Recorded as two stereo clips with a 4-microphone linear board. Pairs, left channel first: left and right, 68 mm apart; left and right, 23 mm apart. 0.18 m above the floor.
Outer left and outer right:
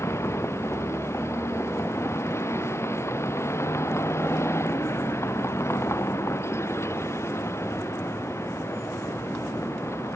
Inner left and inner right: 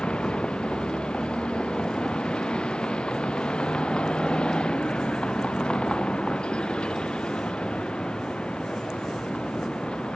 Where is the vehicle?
45° left (ahead or behind).